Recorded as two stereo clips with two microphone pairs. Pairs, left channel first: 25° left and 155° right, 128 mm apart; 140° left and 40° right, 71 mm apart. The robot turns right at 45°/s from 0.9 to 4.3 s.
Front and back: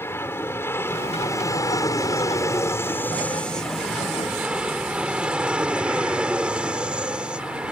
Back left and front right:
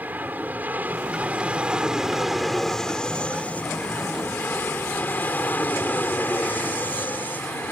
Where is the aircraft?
20° right; by 7.7 s 135° left.